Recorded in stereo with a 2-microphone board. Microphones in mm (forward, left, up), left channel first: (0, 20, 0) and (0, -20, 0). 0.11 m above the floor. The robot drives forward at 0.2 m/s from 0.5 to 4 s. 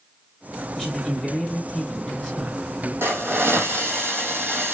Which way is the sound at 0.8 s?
15° left (ahead or behind).